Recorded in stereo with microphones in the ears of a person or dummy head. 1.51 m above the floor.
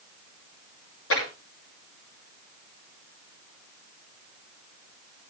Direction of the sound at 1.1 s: 75° left (ahead or behind).